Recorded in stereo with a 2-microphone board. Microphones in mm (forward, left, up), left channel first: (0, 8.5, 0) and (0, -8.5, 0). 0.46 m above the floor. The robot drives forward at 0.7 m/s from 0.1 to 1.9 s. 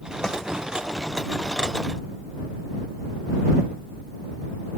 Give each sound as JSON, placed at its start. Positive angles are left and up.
{"t": 0.2, "sound": "a snare drum", "side_deg": 30}